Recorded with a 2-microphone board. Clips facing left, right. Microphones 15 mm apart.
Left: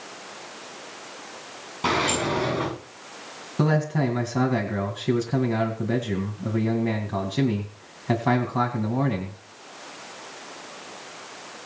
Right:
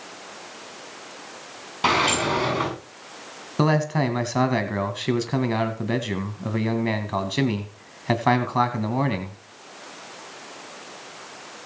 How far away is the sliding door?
About 7 m.